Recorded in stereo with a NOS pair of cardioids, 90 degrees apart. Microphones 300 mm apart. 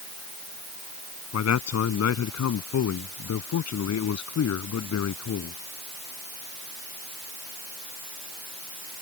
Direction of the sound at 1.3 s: 60° left.